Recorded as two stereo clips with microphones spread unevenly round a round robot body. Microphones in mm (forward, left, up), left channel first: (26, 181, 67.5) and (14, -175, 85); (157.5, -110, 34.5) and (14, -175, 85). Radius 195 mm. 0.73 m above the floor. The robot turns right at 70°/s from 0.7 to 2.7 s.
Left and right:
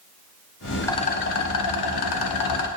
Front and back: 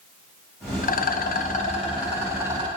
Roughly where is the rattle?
Ahead.